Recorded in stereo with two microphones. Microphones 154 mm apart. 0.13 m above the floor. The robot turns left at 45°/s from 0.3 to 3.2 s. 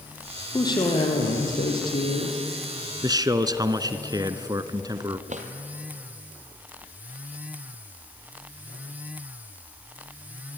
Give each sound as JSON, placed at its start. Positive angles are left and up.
{"t": 0.5, "sound": "a woman speaking", "azimuth_deg": 155, "distance_m": 4.5}
{"t": 3.0, "sound": "a man speaking", "side_deg": -25, "distance_m": 1.2}
{"t": 5.3, "sound": "a drawer", "side_deg": -55, "distance_m": 2.5}